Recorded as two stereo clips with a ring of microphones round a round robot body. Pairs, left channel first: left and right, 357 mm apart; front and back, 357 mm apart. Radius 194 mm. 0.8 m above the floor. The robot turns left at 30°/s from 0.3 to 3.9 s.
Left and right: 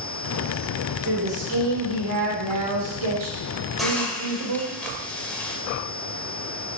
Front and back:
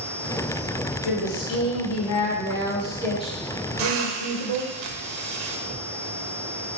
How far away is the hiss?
About 1.4 m.